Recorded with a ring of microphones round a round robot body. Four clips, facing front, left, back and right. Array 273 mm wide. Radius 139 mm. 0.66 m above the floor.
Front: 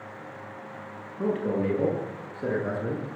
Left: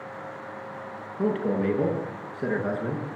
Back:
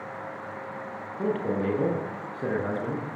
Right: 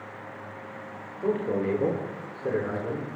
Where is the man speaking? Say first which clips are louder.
Left 1 dB, front 1 dB; 120° left, 8.5 m; by 3.0 s 130° left, 9 m.